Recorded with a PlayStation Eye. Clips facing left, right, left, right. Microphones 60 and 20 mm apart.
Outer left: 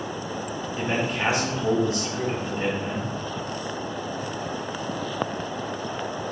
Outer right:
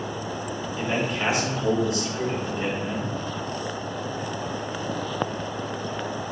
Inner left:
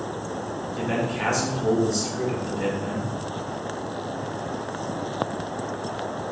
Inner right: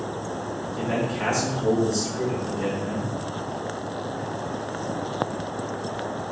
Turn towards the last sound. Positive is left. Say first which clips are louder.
# even, even
turn(degrees=30)  # may be behind; listen again after turning